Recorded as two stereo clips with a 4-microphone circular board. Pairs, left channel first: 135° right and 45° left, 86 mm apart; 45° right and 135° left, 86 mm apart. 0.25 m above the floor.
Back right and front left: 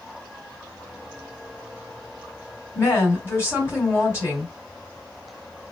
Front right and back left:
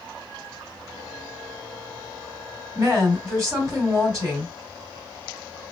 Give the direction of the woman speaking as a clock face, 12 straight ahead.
6 o'clock.